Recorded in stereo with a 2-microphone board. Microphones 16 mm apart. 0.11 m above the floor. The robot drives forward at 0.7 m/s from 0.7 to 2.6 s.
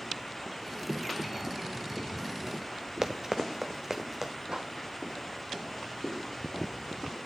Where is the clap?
60° right (ahead or behind), 4.5 m.